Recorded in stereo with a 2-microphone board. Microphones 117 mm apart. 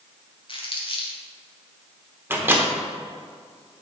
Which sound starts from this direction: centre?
A microwave, at 2.3 s.